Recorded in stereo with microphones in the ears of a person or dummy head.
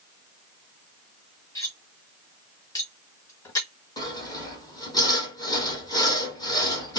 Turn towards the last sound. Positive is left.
turn(degrees=20)  # may be behind; listen again after turning